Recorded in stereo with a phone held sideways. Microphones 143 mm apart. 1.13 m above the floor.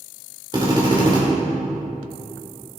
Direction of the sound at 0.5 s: 30° right (ahead or behind).